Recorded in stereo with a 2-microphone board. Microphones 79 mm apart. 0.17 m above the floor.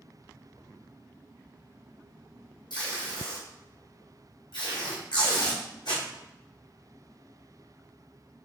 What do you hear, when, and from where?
2.7 s tape being pulled: 80° left, 1.6 m